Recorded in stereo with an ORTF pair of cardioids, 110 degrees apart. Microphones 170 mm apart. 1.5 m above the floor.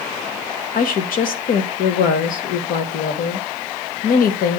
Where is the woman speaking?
60° left, 1.2 m.